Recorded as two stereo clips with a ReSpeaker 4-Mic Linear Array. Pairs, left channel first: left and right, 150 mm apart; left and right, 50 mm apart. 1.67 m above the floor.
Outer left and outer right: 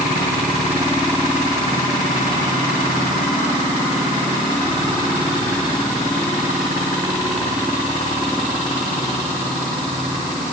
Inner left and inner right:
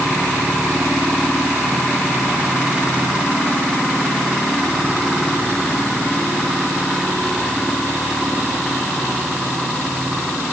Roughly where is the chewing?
No chewing in this recording.